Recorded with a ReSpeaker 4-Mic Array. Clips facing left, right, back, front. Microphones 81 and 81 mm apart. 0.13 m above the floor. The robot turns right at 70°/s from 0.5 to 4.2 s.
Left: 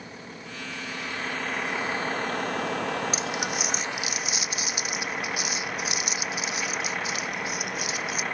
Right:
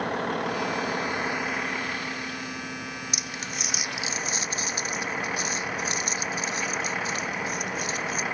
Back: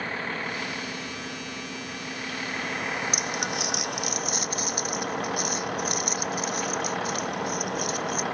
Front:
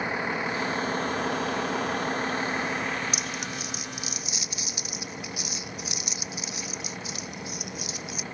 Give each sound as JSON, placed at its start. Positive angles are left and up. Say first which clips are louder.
{"t": 0.0, "sound": "a vehicle", "louder": "right 14 dB, front 3 dB", "azimuth_deg": -75}
{"t": 3.1, "sound": "crumpling", "louder": "left 6 dB, back 4 dB", "azimuth_deg": 145}